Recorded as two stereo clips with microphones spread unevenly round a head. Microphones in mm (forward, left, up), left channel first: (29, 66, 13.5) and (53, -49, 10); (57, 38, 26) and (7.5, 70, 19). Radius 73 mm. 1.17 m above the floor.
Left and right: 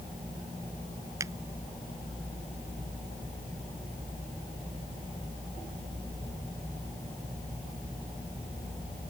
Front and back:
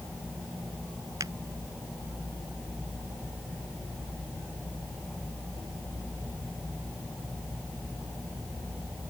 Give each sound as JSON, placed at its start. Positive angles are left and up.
{"t": 1.2, "sound": "a finger snap", "azimuth_deg": -150}